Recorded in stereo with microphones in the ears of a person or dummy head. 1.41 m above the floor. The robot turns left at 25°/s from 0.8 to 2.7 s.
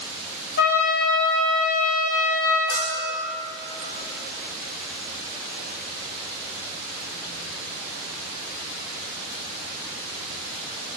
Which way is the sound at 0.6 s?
120° left.